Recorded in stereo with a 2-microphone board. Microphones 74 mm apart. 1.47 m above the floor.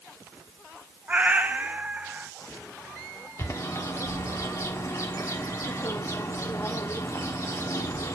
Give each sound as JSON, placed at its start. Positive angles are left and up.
{"t": 1.1, "sound": "a cat meowing", "side_deg": -20, "distance_m": 0.8}
{"t": 3.4, "sound": "a bird", "side_deg": 40, "distance_m": 1.3}